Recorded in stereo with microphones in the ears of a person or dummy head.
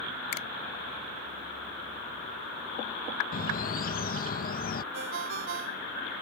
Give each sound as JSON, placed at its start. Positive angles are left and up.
{"t": 0.3, "sound": "a finger snap", "side_deg": 85}
{"t": 3.3, "sound": "a bird", "side_deg": 45}
{"t": 4.9, "sound": "a ringtone", "side_deg": -75}